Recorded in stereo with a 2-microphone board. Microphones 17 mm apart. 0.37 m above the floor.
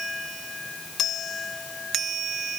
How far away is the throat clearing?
I don't hear throat clearing.